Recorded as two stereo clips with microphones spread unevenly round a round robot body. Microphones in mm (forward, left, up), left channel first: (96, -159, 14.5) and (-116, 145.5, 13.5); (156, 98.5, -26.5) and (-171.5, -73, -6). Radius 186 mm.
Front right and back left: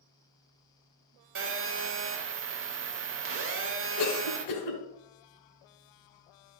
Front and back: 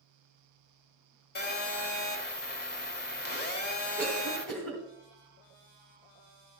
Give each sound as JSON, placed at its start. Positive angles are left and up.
{"t": 1.4, "sound": "a phone buzzing", "azimuth_deg": 80, "distance_m": 1.0}
{"t": 4.0, "sound": "a cough", "azimuth_deg": -60, "distance_m": 2.5}